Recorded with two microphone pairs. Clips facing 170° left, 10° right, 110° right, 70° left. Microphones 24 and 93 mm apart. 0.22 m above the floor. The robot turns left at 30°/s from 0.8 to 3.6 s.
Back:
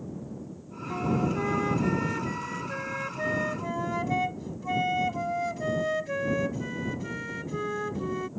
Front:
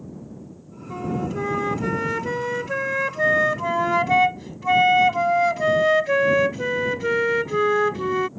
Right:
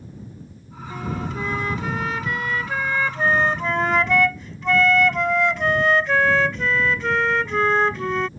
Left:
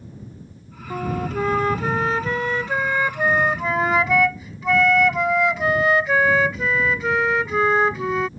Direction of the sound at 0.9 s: 75° left.